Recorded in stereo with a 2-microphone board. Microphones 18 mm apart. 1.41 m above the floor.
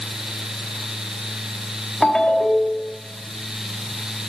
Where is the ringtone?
55° left (ahead or behind), 1.3 m.